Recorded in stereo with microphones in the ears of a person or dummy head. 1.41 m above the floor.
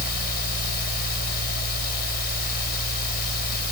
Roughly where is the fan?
Left.